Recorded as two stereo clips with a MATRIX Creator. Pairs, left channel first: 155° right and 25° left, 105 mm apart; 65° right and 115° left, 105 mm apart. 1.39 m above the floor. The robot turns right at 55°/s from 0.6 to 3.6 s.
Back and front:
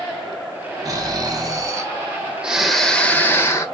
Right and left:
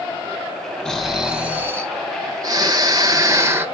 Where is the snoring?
10° left, 0.6 m; by 3.7 s 160° left, 0.6 m.